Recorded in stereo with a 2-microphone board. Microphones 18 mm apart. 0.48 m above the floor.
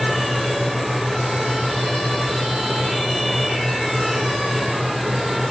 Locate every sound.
Only background noise.